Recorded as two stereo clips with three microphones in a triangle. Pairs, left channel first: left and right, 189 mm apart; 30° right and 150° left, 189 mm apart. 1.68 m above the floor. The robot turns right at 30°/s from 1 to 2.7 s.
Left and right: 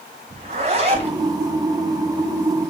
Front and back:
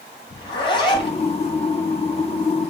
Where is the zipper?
75° right, 1.8 m; by 1.2 s 70° right, 1.8 m.